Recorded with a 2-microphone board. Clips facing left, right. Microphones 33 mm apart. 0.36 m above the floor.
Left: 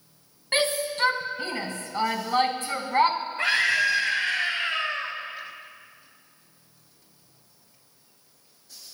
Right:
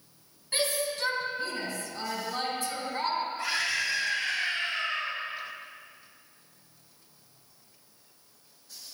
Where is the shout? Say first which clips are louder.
Left 5 dB; 60° left (ahead or behind), 2.5 m.